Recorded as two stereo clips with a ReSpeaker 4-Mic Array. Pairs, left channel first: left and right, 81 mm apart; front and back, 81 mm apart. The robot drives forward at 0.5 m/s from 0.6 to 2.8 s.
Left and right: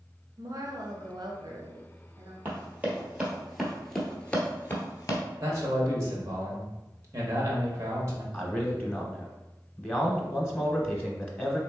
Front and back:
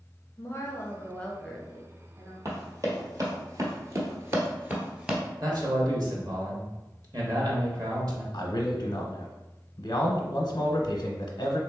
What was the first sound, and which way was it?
A woman speaking, 50° right.